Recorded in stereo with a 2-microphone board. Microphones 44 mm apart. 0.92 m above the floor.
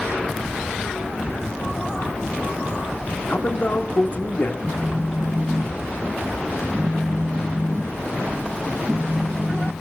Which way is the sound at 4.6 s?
30° right (ahead or behind).